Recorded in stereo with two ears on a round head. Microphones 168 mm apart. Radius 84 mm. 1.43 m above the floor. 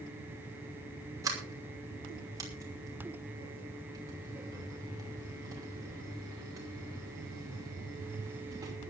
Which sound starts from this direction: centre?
A sliding door, at 1.2 s.